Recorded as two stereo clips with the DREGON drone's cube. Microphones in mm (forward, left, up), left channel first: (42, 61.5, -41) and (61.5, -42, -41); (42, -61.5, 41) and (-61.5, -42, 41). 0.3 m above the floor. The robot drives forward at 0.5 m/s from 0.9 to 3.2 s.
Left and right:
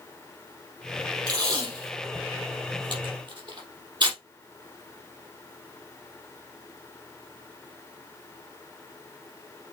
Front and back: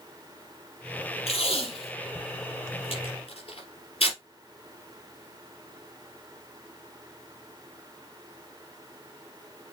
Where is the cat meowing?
I don't hear a cat meowing.